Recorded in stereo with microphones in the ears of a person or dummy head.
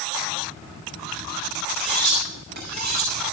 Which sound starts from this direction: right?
Cutlery clinking, at 1.7 s.